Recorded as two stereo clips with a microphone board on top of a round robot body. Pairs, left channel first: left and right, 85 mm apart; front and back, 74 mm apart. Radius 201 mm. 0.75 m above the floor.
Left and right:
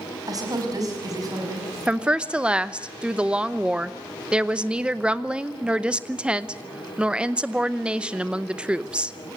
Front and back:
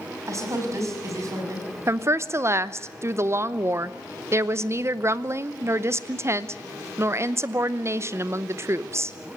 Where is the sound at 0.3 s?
135° right, 5.5 m.